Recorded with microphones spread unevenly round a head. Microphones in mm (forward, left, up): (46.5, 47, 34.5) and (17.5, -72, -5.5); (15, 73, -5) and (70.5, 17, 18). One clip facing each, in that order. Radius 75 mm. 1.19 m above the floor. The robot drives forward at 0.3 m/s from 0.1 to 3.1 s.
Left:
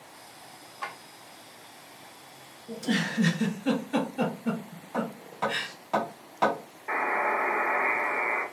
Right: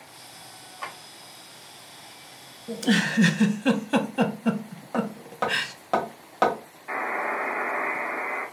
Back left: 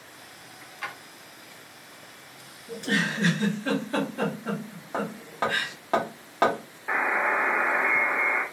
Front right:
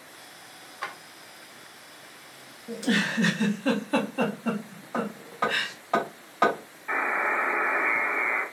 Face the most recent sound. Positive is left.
turn(degrees=145)